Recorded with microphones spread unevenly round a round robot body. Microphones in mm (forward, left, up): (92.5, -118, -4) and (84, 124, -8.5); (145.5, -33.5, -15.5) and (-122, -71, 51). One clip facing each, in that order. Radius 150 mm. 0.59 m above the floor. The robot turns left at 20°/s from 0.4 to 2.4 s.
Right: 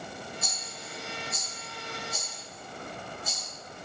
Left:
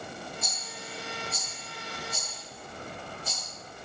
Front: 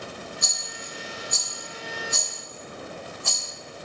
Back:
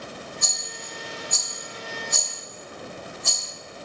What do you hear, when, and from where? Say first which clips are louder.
0.4 s a rattle: left 1 dB, even; 135° right, 0.9 m; by 3.4 s 175° right, 0.9 m